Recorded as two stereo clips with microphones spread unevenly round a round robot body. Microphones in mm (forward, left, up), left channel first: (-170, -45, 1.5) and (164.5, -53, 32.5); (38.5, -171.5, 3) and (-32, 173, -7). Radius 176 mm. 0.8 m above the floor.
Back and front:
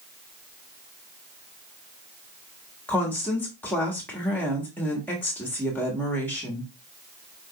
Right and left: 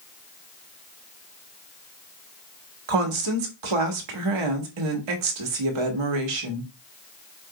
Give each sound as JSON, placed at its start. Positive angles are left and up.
{"t": 2.9, "sound": "a woman speaking", "azimuth_deg": 95, "distance_m": 1.4}